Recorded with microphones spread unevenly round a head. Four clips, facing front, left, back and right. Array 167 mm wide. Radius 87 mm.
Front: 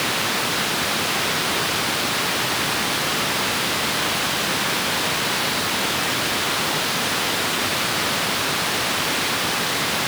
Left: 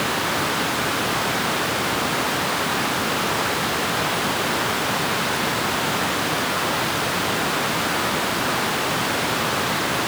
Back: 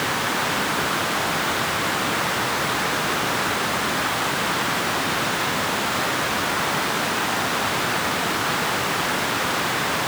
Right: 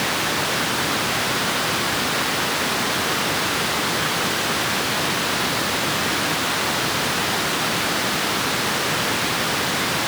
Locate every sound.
Only background noise.